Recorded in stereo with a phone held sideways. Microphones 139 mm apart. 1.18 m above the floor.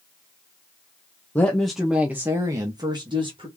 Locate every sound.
1.4 s a woman speaking: 10° left (ahead or behind), 1.0 m; by 3.5 s 40° right (ahead or behind), 1.7 m